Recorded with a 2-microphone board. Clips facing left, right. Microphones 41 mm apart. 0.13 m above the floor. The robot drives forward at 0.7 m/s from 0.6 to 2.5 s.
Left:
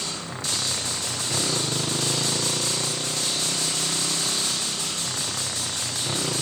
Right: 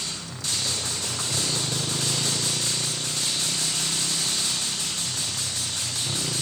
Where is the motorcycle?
30° left (ahead or behind).